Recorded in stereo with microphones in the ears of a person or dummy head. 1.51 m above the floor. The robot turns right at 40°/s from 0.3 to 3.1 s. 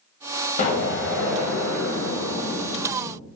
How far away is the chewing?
I don't hear chewing.